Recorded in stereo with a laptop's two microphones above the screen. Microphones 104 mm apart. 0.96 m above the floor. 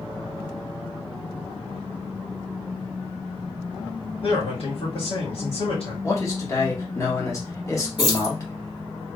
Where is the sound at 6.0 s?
25° left (ahead or behind), 1.3 m.